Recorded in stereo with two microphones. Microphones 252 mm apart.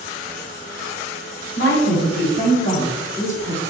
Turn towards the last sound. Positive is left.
turn(degrees=5)  # may be behind; listen again after turning